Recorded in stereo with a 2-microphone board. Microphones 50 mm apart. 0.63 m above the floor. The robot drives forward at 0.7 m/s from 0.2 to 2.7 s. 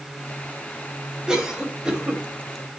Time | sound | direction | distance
1.3 | a cough | 15° right (ahead or behind) | 3.5 m